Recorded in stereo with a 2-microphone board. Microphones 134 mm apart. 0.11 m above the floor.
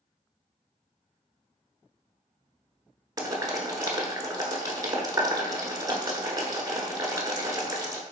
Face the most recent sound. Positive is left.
turn(degrees=-30)  # may be behind; listen again after turning